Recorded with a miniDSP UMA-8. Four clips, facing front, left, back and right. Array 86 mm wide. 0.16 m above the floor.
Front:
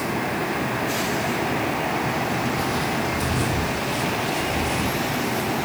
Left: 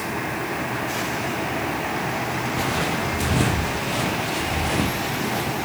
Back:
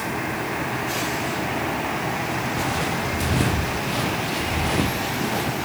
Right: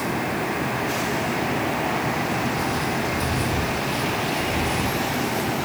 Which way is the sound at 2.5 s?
115° left.